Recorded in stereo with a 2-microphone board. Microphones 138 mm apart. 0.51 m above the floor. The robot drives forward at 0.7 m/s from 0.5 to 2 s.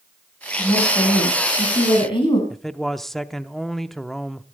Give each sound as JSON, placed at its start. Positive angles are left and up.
{"t": 0.6, "sound": "a woman speaking", "side_deg": 30, "distance_m": 5.5}
{"t": 2.5, "sound": "a man speaking", "side_deg": 0, "distance_m": 0.7}